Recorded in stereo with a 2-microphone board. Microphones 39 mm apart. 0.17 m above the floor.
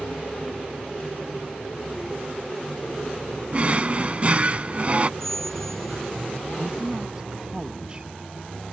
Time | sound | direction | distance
3.5 | a drawer | 35° right (ahead or behind) | ?
5.2 | a squeak | 10° left (ahead or behind) | ?
6.6 | a woman speaking | 25° right (ahead or behind) | ?